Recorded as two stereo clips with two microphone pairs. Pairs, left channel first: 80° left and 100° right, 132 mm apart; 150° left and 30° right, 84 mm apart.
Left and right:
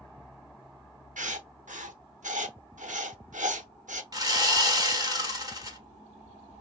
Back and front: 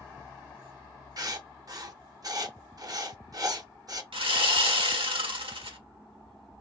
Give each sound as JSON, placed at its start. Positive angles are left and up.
{"t": 1.2, "sound": "writing", "azimuth_deg": -80, "distance_m": 0.6}
{"t": 4.1, "sound": "sawing", "azimuth_deg": -40, "distance_m": 1.0}